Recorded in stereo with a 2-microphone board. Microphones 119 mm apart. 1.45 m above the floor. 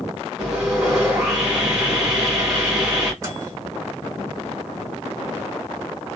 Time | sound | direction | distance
0.4 | sawing | 10° right (ahead or behind) | 1.6 m
3.2 | a microwave | 25° right (ahead or behind) | 1.3 m